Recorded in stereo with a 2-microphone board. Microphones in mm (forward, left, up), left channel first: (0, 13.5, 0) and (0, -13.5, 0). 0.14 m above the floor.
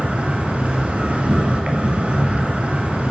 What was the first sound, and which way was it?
An insect, 60° right (ahead or behind).